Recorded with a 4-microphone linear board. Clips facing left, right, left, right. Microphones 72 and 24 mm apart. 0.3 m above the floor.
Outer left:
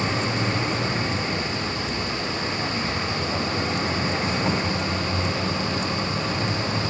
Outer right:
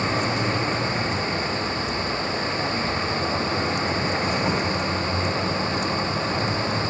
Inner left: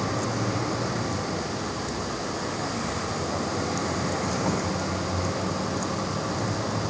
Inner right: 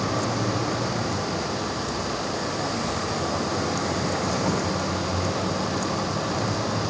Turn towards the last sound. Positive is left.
turn(degrees=-5)  # may be behind; listen again after turning